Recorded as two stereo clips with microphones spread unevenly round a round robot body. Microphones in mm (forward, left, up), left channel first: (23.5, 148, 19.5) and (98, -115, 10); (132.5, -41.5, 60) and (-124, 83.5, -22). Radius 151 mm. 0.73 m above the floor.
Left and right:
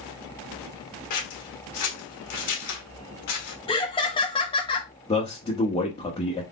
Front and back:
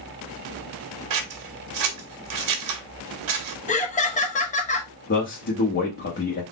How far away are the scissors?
About 1.2 m.